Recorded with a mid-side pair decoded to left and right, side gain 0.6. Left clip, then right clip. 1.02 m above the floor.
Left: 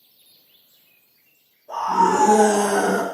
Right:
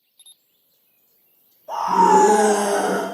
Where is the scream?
50° right, 0.7 m; by 3.0 s 25° left, 0.8 m.